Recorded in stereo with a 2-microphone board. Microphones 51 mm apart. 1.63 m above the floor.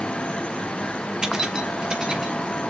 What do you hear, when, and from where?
1.2 s keys jangling: 15° right (ahead or behind), 1.1 m